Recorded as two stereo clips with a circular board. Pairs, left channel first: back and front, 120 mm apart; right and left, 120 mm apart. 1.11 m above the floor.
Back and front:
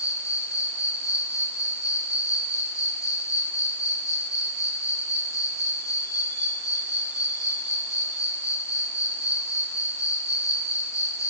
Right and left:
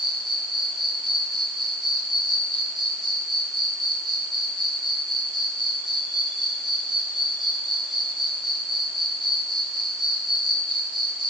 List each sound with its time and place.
0.0 s an insect: 125° left, 1.6 m